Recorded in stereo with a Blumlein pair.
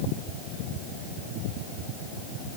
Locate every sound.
Only background noise.